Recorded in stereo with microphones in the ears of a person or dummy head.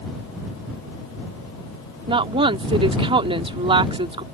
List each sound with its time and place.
2.1 s a woman speaking: 30° right (ahead or behind)